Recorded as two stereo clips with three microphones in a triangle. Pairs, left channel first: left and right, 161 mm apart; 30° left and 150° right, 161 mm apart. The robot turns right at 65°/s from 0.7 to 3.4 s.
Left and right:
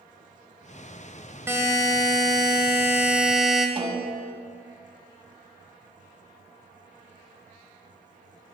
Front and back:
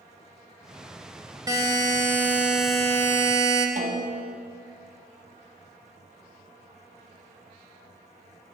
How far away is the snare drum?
About 1.3 m.